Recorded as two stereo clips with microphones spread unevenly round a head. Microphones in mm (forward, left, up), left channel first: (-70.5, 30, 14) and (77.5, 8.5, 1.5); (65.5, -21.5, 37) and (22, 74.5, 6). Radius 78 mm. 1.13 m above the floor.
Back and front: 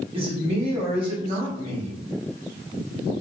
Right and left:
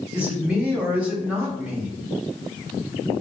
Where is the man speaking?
45° left, 1.5 m.